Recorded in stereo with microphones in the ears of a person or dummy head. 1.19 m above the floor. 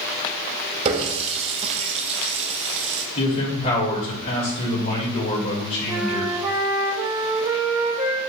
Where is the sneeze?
No sneeze in this recording.